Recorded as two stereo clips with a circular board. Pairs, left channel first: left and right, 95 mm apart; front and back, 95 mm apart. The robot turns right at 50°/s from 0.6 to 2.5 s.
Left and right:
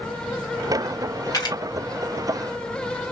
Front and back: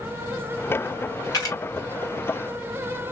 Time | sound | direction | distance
1.3 | a camera shutter | 40° left | 2 m